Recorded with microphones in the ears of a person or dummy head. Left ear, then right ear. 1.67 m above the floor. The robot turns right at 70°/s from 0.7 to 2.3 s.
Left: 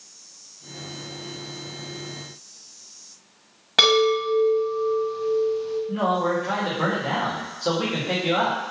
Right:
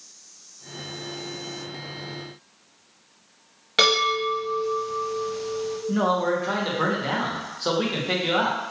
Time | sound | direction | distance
3.8 | a chime | 10° left (ahead or behind) | 1.2 m
5.9 | a man speaking | 20° right (ahead or behind) | 0.6 m